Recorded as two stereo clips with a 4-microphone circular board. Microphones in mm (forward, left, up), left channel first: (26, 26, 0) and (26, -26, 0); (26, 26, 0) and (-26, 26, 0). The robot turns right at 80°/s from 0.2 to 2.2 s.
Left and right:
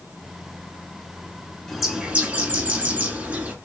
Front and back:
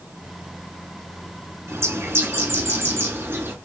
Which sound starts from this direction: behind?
A bird, at 1.7 s.